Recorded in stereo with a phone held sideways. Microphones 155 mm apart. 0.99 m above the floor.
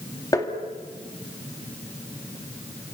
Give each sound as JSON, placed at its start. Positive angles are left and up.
{"t": 0.3, "sound": "tapping", "side_deg": 25, "distance_m": 2.5}